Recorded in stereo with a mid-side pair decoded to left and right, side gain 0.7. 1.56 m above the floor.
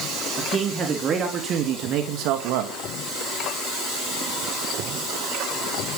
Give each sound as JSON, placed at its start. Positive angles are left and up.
{"t": 0.4, "sound": "a man speaking", "azimuth_deg": -25, "distance_m": 4.5}